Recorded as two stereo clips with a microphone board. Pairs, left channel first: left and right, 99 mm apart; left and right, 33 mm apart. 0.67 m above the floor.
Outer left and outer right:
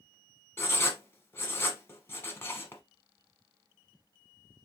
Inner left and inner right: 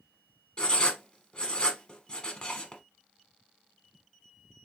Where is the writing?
25° left (ahead or behind), 0.9 m.